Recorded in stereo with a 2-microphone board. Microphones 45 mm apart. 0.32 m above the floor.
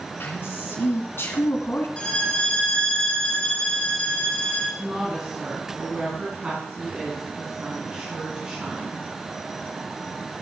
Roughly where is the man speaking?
Left.